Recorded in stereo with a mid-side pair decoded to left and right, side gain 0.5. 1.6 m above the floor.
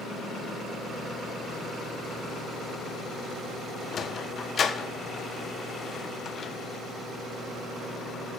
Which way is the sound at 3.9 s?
45° left.